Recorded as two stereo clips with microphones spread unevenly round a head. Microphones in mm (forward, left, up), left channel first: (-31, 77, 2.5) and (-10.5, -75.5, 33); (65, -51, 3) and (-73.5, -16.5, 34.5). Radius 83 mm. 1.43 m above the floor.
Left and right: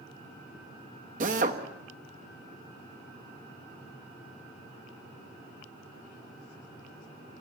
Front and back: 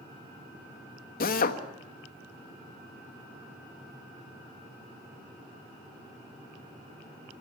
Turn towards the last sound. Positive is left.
turn(degrees=-40)